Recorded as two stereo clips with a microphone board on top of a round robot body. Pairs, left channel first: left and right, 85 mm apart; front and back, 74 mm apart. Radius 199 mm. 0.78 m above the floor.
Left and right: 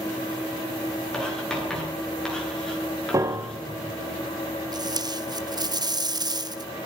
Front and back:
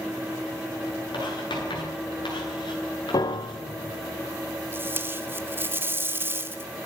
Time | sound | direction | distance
1.1 | writing | 5° left | 10 m
3.1 | a piano | 35° right | 0.8 m
4.7 | tape being pulled | 120° right | 2.0 m